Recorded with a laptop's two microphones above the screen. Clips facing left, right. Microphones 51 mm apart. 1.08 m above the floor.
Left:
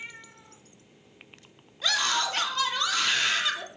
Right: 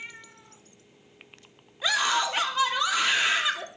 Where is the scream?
15° right (ahead or behind), 2.5 m.